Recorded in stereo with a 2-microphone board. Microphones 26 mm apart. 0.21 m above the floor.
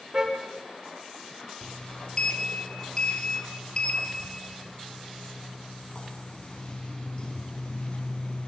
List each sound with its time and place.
0.1 s a car horn: 30° right (ahead or behind), 3 m
1.6 s a sliding door: 40° left (ahead or behind), 1.8 m